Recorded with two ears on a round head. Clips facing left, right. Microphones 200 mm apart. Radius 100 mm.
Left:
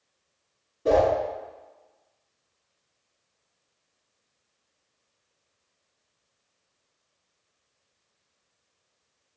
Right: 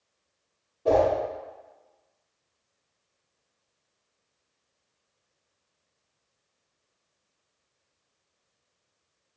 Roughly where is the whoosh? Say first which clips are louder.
Left 1 dB; left.